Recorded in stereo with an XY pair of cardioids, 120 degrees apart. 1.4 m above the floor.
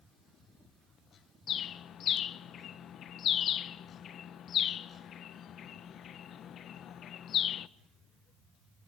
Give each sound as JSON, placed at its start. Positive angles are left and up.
{"t": 1.5, "sound": "a bird", "azimuth_deg": 55, "distance_m": 0.9}